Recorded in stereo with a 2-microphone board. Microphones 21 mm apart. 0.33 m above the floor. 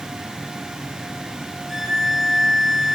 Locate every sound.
1.7 s a violin: 15° left (ahead or behind), 0.6 m